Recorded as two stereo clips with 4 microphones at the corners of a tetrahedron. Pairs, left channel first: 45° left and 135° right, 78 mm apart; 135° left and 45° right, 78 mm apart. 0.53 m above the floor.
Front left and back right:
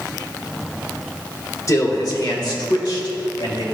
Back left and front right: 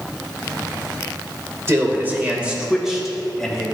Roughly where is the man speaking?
Ahead.